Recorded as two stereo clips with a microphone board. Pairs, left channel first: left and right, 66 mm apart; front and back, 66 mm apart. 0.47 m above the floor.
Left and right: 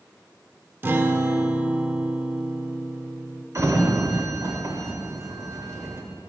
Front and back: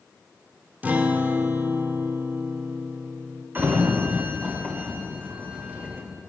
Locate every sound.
0.8 s a guitar: 130° right, 0.6 m
3.5 s a sliding door: 125° right, 1.0 m